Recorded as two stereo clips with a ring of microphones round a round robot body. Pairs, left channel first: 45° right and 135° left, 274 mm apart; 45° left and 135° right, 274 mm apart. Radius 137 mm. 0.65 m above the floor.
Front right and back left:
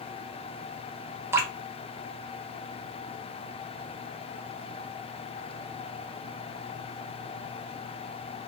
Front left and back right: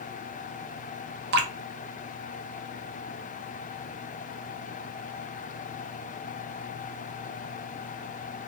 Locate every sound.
1.3 s dripping: 150° right, 0.5 m